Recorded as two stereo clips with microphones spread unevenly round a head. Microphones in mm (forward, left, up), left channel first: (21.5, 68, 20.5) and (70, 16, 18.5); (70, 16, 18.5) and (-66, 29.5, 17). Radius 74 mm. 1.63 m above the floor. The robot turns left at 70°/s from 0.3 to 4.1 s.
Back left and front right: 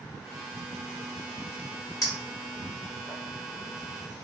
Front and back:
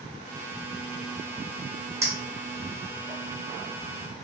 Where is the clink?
105° left, 1.2 m; by 3.2 s 25° left, 1.2 m.